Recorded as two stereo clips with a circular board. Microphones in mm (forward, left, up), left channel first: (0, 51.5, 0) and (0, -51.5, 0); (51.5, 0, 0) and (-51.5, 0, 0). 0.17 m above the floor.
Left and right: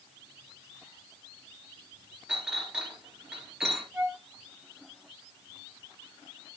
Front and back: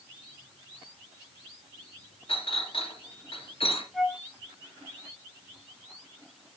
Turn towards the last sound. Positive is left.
turn(degrees=-90)